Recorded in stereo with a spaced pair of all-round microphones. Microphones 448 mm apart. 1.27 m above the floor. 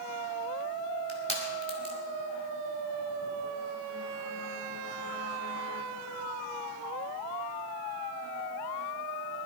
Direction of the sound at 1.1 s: 85° right.